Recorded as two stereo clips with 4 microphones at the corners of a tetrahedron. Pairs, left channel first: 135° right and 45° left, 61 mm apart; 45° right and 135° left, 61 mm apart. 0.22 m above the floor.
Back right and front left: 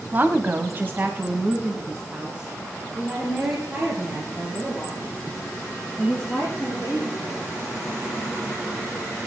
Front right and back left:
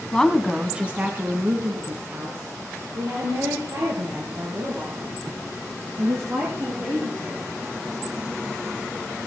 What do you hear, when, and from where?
0.1 s a woman speaking: 20° left, 1.3 m; by 7.5 s 115° left, 8.5 m